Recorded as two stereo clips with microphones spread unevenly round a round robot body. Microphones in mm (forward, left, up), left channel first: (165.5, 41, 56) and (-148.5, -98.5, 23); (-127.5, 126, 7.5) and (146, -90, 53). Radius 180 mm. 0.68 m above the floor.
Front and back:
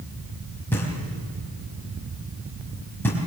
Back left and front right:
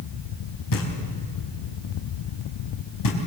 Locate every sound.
0.7 s knocking: 110° left, 4 m